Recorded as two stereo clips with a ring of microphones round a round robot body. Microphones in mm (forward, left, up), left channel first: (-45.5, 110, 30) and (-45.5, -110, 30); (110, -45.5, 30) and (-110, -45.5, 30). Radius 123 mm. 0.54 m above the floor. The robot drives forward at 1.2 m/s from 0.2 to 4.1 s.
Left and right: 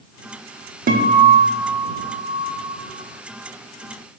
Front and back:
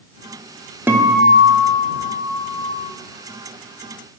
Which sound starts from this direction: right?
A guitar, at 0.9 s.